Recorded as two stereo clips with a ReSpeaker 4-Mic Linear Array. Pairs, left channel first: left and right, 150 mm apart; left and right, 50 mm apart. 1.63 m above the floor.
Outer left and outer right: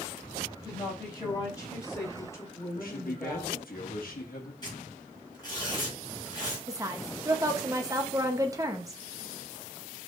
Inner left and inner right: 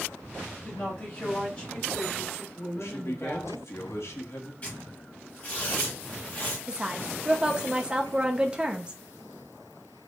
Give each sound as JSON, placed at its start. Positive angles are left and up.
{"t": 0.6, "sound": "a woman speaking", "side_deg": 30, "distance_m": 3.5}
{"t": 2.8, "sound": "a man speaking", "side_deg": 70, "distance_m": 1.2}
{"t": 4.6, "sound": "tearing paper", "side_deg": 30, "distance_m": 3.5}
{"t": 6.7, "sound": "a woman speaking", "side_deg": -20, "distance_m": 0.8}